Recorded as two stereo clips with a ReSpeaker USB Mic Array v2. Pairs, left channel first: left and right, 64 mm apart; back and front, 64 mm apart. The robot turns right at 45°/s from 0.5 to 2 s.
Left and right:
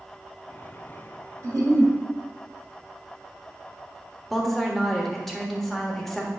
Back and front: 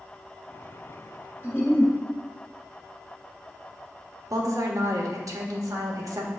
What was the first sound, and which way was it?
A giggle, 120° right.